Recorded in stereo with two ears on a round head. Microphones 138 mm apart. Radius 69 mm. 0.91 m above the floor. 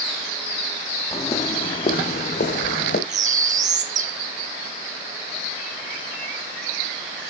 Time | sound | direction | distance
1.1 | footsteps | 15° left (ahead or behind) | 1.9 m
3.1 | a bird | 50° right (ahead or behind) | 1.2 m